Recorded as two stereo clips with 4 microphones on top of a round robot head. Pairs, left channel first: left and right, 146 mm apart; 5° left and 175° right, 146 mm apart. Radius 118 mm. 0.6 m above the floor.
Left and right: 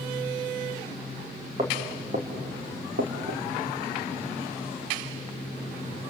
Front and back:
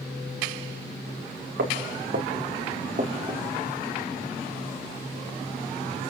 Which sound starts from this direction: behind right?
Footsteps, at 1.6 s.